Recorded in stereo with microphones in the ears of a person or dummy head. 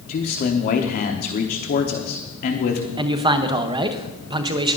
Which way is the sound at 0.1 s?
45° left (ahead or behind).